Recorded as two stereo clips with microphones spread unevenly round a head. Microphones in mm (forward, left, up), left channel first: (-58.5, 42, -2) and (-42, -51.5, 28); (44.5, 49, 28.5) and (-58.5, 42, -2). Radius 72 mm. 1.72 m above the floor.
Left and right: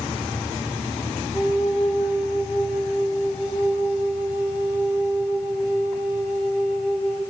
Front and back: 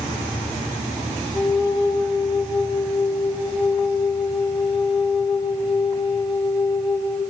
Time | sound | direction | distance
1.3 | a flute | 65° right | 3 m